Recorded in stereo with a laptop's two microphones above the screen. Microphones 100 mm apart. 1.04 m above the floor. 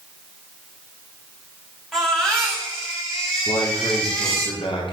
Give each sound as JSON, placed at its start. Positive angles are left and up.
{"t": 1.9, "sound": "a baby crying", "side_deg": 5, "distance_m": 6.0}
{"t": 3.5, "sound": "a man speaking", "side_deg": 60, "distance_m": 3.5}